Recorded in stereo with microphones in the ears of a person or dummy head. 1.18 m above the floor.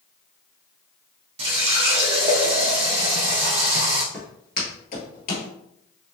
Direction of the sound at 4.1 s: 5° left (ahead or behind).